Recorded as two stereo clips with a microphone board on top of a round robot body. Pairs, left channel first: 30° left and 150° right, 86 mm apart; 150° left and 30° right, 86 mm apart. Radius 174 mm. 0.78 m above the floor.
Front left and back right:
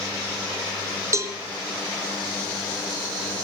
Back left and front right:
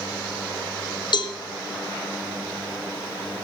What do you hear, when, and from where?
1.1 s a cowbell: 160° left, 1.4 m